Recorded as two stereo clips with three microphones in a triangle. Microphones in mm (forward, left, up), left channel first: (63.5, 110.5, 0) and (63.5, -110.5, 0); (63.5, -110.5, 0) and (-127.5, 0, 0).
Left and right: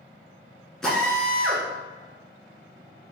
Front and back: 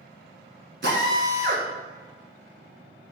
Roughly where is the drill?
Behind.